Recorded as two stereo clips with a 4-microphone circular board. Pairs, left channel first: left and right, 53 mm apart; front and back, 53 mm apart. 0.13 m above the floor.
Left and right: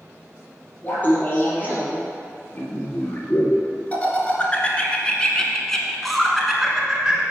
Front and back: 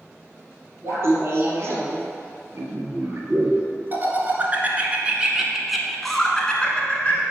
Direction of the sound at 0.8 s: 145° left.